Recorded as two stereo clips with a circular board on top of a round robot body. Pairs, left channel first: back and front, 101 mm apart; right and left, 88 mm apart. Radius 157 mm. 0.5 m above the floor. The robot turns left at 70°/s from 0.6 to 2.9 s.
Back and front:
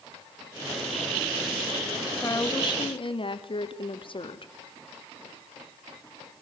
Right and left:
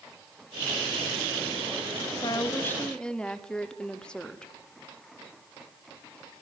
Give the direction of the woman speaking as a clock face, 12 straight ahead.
4 o'clock.